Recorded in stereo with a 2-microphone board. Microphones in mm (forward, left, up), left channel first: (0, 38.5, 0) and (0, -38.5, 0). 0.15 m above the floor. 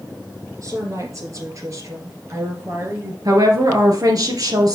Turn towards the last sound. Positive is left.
turn(degrees=-55)  # may be behind; listen again after turning